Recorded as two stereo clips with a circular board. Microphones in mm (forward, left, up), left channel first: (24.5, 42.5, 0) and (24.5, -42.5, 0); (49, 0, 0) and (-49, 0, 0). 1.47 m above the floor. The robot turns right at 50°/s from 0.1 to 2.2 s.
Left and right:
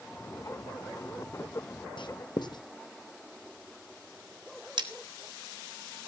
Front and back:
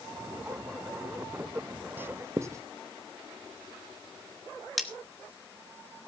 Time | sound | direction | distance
2.0 | writing | 110° left | 0.7 m
4.8 | cutlery clinking | 90° right | 1.5 m